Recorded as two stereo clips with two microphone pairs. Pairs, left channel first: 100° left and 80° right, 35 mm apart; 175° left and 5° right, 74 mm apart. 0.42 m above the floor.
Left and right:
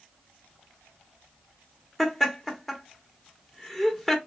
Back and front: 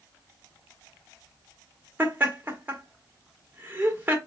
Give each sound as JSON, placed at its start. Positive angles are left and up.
{"t": 2.0, "sound": "laughter", "azimuth_deg": 25, "distance_m": 1.0}